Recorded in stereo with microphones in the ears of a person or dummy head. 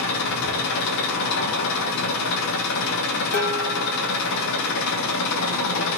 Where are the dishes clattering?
45° left (ahead or behind), 2.0 m.